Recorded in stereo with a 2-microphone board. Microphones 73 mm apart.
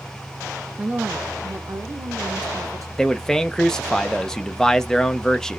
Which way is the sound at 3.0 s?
5° left (ahead or behind).